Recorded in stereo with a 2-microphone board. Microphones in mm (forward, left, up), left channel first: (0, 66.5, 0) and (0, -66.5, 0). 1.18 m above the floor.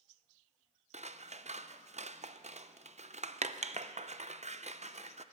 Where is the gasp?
No gasp in this recording.